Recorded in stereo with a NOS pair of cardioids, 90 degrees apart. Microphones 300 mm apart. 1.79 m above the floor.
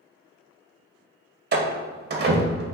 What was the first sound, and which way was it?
A door slam, 40° right.